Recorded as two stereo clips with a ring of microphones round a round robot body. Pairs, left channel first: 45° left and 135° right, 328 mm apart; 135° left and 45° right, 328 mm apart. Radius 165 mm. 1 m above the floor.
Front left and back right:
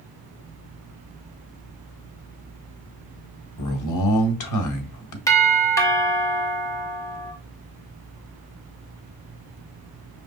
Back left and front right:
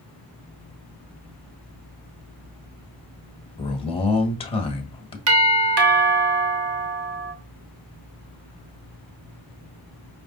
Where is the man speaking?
65° left, 1.2 m.